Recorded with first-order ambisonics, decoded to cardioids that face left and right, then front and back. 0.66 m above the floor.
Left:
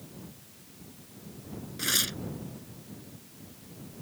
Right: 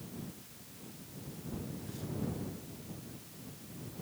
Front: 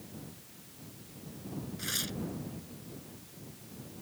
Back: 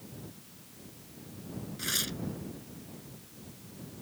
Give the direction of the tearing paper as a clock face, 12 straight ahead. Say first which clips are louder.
Left 17 dB, back 3 dB; 9 o'clock.